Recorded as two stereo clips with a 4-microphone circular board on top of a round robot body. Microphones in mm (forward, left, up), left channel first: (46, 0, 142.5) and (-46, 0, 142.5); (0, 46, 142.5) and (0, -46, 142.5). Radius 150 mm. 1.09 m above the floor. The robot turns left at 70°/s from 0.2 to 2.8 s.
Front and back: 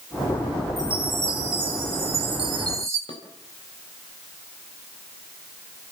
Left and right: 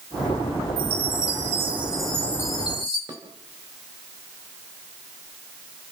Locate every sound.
0.8 s a chime: 90° right, 0.8 m; by 3.0 s 125° left, 0.8 m
3.1 s dishes clattering: 35° right, 4 m